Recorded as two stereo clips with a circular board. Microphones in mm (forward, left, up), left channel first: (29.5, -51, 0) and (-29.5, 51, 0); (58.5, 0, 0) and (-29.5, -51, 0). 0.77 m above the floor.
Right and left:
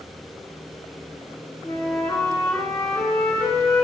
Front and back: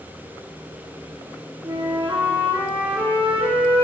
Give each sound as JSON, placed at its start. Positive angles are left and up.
{"t": 1.6, "sound": "a flute", "azimuth_deg": -130, "distance_m": 1.4}